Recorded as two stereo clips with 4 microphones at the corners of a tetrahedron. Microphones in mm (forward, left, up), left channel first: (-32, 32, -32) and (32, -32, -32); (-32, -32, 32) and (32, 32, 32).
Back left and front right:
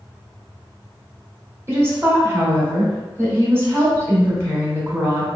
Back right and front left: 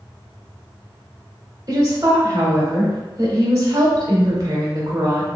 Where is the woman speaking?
5° left, 1.6 m.